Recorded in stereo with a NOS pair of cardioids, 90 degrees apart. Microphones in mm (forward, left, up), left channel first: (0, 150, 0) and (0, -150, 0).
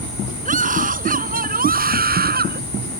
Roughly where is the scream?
Ahead right.